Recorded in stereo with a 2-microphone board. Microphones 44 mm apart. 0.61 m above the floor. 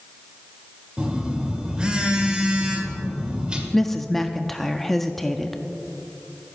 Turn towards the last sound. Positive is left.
turn(degrees=5)  # may be behind; listen again after turning